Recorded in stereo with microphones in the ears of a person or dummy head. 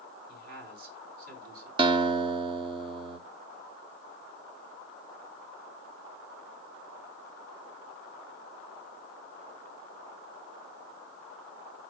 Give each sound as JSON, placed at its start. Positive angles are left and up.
{"t": 0.3, "sound": "a man speaking", "side_deg": -60, "distance_m": 4.0}
{"t": 1.8, "sound": "a guitar", "side_deg": -30, "distance_m": 0.6}